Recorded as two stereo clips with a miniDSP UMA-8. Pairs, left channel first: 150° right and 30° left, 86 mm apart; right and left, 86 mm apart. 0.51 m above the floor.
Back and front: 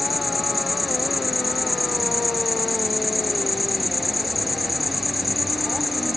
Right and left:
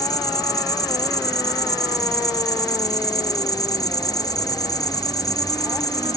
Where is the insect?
55° right.